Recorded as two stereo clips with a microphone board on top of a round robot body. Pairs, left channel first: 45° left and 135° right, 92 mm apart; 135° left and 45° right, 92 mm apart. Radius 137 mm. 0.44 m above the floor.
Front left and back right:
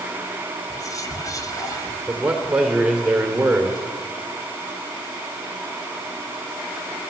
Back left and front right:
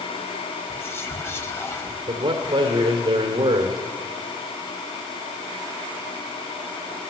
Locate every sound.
0.7 s whispering: 80° left, 1.9 m
2.1 s a man speaking: 55° right, 1.9 m